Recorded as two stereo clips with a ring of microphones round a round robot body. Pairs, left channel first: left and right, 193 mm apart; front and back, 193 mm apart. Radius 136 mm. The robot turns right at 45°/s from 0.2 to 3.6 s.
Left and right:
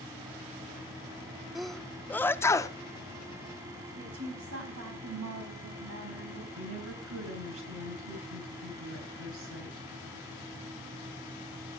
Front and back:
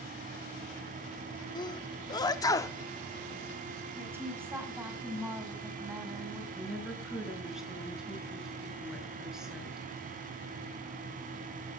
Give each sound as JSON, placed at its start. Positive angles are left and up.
{"t": 1.6, "sound": "a sneeze", "azimuth_deg": -5, "distance_m": 0.7}
{"t": 4.0, "sound": "a woman speaking", "azimuth_deg": -100, "distance_m": 5.5}
{"t": 6.6, "sound": "a woman speaking", "azimuth_deg": -95, "distance_m": 5.5}